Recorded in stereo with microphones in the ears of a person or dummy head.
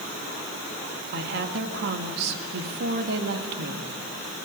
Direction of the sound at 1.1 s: 55° right (ahead or behind).